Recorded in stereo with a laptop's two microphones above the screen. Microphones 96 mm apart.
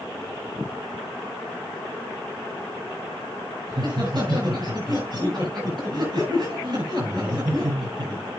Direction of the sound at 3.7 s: 50° right (ahead or behind).